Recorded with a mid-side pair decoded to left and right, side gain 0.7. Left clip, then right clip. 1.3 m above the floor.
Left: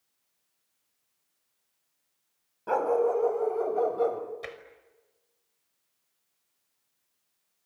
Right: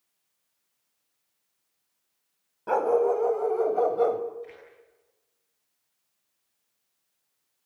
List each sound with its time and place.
2.7 s a dog barking: 10° right, 3 m; by 4.2 s 20° right, 2.5 m
4.4 s tapping: 65° left, 5.5 m